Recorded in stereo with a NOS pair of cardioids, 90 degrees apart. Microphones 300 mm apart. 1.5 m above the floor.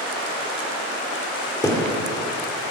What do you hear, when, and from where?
1.6 s a thud: 10° left, 2.5 m